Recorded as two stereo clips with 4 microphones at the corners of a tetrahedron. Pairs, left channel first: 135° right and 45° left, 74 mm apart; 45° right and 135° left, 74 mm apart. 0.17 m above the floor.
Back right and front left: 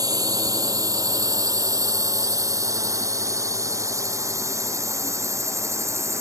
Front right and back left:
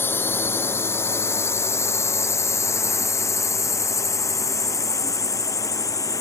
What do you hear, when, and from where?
0.0 s a drone: 15° left; by 6.2 s 5° right